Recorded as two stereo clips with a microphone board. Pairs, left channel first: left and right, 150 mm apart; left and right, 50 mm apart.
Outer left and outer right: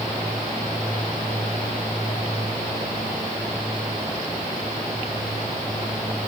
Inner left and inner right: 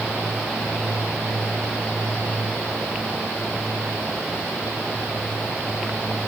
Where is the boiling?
No boiling in this recording.